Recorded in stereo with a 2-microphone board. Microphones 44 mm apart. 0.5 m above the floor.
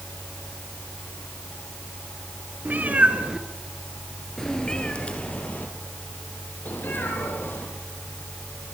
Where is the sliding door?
No sliding door in this recording.